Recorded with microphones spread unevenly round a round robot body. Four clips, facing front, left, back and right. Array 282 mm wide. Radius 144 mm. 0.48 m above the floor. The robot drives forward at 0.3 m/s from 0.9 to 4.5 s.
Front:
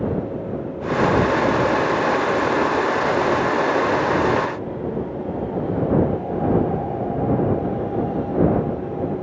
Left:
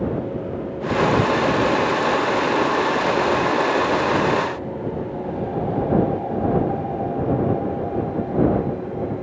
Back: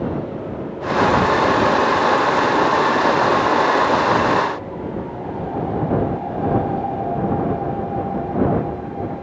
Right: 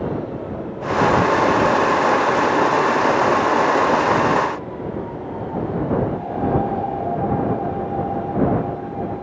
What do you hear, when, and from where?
Only background noise.